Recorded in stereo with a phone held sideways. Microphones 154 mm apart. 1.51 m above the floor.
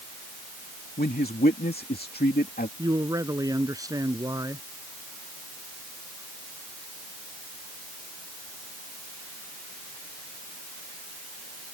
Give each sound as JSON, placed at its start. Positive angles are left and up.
{"t": 1.0, "sound": "a man speaking", "side_deg": 80}
{"t": 2.8, "sound": "a man speaking", "side_deg": -20}